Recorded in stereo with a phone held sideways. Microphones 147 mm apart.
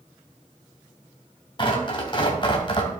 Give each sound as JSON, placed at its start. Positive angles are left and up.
{"t": 1.6, "sound": "tearing paper", "side_deg": 35, "distance_m": 2.5}